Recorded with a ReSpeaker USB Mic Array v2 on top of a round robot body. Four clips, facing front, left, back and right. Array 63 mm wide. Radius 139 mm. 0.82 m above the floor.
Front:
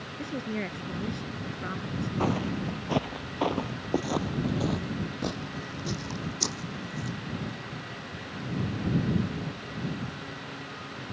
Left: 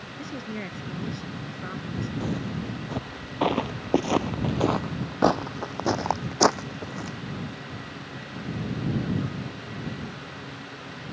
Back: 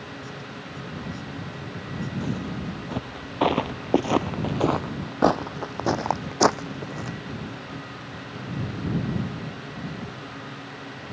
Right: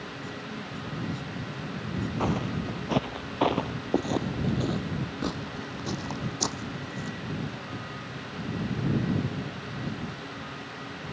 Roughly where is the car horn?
No car horn in this recording.